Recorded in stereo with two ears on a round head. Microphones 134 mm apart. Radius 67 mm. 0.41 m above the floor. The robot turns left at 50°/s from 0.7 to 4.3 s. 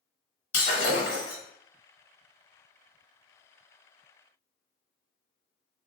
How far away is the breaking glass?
About 1.2 m.